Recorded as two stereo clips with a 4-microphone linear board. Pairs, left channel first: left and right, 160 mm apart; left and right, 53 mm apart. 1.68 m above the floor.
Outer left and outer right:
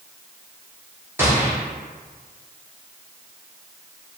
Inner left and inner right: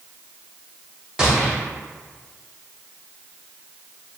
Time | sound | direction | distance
1.2 | a gunshot | 15° right (ahead or behind) | 1.4 m